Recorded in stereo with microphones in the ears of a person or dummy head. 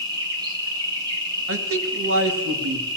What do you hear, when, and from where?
0.0 s an insect: 25° right (ahead or behind), 3.5 m
1.5 s a man speaking: 90° right, 2 m